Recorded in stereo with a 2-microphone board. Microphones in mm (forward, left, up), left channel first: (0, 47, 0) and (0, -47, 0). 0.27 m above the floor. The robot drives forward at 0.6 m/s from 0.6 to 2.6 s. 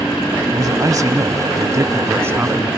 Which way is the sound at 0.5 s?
40° right (ahead or behind).